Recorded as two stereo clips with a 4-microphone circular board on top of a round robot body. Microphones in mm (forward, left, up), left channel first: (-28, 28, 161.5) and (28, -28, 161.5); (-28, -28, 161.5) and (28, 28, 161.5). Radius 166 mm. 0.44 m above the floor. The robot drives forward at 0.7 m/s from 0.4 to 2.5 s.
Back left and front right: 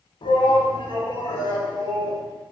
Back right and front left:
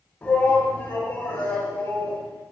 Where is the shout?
150° left, 3.5 m; by 2.2 s 160° left, 4.5 m.